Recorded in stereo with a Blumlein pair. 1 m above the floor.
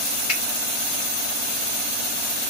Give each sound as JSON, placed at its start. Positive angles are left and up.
{"t": 0.3, "sound": "a finger snap", "azimuth_deg": 35, "distance_m": 1.5}